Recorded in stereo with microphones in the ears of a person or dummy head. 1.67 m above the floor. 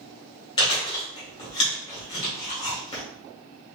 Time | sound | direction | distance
0.6 | chewing | 25° left (ahead or behind) | 1.9 m